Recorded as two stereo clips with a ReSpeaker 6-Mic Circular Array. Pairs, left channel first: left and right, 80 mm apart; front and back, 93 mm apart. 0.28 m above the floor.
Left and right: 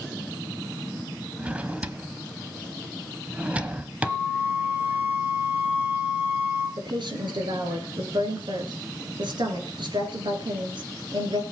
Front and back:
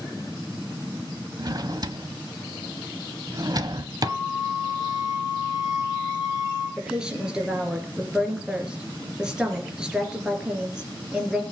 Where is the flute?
25° right, 7.5 m.